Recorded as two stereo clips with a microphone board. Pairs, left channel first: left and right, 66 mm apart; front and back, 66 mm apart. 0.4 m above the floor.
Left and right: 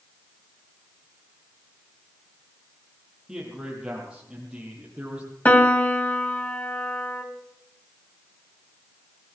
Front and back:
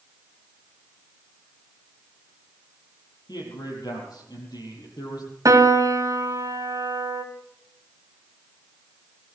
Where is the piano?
155° left, 2.5 m.